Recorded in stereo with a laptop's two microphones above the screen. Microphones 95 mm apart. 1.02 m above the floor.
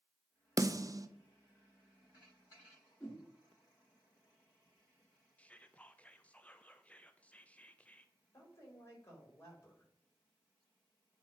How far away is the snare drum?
About 0.5 m.